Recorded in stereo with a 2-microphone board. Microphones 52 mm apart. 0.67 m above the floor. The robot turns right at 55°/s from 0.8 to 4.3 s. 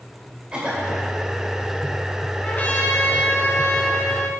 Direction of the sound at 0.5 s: 15° right (ahead or behind).